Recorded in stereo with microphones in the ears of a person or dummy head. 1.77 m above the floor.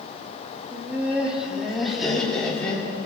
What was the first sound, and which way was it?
Laughter, 15° right (ahead or behind).